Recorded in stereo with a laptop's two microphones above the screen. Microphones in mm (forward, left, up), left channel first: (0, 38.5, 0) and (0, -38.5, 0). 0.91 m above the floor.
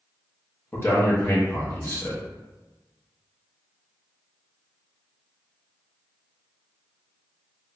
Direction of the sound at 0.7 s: 30° left (ahead or behind).